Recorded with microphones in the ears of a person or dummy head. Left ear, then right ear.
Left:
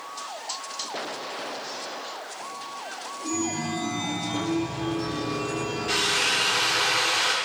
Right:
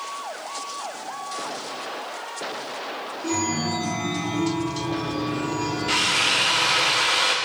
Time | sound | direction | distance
3.2 | a chime | 30° right (ahead or behind) | 3 m
5.9 | a drill | 15° right (ahead or behind) | 0.7 m